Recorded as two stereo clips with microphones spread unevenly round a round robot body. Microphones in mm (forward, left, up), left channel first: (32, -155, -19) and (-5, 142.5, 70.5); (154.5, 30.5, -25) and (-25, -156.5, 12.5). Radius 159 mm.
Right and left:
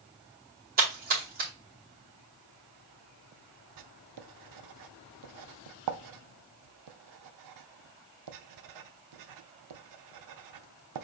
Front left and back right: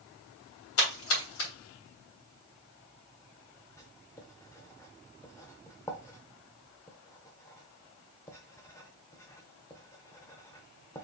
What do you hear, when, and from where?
0.8 s a splash: 30° left, 3.5 m
3.8 s writing: 120° left, 0.7 m